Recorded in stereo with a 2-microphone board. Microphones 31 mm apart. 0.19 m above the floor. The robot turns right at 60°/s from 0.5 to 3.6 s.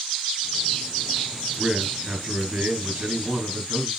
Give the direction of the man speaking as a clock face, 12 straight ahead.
6 o'clock.